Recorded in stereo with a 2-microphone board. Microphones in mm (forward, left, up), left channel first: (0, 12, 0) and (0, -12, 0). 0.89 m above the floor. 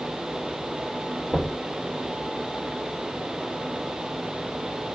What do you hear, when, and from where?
1.3 s knocking: 40° right (ahead or behind), 2.0 m